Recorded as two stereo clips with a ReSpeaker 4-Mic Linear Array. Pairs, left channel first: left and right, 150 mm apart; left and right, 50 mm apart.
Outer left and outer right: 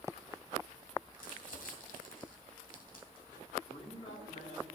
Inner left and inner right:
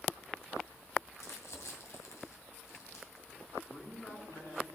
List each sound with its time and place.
1.1 s crumpling: 80° left, 2.5 m
3.7 s a man speaking: 45° left (ahead or behind), 2.5 m